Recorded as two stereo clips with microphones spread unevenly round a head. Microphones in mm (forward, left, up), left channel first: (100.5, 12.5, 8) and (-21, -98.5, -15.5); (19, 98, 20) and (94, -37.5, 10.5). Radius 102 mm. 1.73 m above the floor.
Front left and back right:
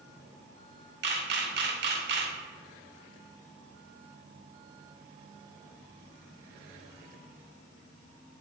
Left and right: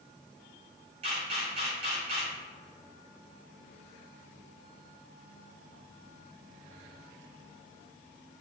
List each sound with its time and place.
1.0 s a camera shutter: 120° right, 0.6 m